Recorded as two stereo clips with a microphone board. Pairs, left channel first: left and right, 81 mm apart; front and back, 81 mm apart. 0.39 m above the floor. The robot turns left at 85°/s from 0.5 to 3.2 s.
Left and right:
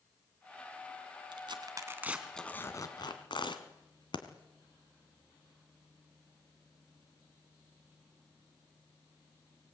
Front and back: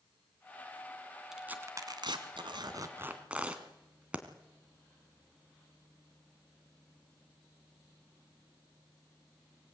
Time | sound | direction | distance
1.3 | tearing paper | 95° right | 2 m